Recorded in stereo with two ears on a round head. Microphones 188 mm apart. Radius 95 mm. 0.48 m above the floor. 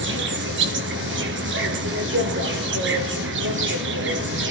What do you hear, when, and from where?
0.0 s an insect: 60° right (ahead or behind), 1.9 m